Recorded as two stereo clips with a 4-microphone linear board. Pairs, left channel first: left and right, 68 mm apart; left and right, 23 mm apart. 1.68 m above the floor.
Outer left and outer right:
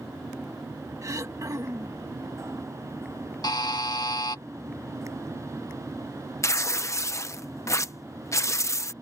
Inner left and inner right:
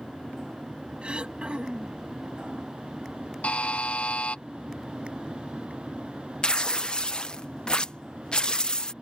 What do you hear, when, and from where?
1.0 s throat clearing: 55° right (ahead or behind)
3.4 s a buzzer: 85° left
6.4 s tearing paper: 45° left (ahead or behind)